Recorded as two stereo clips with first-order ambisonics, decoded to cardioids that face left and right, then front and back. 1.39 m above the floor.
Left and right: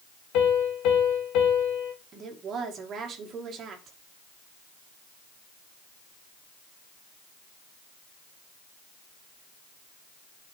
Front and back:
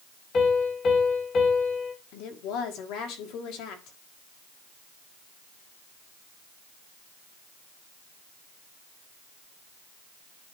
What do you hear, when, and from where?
0.3 s a piano: 60° left, 2 m
2.1 s a woman speaking: 30° right, 1.6 m